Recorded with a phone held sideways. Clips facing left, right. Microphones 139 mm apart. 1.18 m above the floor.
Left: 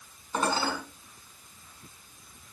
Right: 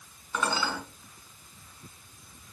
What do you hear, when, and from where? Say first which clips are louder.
0.3 s dishes clattering: left 2 dB; 40° left (ahead or behind), 7.5 m